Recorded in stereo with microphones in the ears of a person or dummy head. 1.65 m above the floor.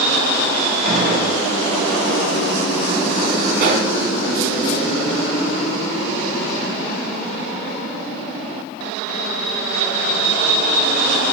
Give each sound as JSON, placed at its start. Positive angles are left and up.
{"t": 0.8, "sound": "a gunshot", "side_deg": -55, "distance_m": 10.0}
{"t": 3.6, "sound": "a pop", "side_deg": -60, "distance_m": 3.0}